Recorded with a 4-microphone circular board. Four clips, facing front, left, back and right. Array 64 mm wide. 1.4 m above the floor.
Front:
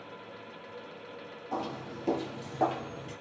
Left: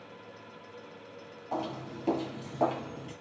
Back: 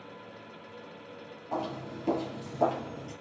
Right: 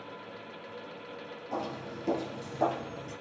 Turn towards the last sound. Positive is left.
turn(degrees=40)